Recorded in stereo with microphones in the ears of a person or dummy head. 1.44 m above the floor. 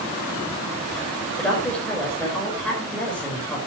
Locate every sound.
1.4 s a woman speaking: 5° left (ahead or behind), 5 m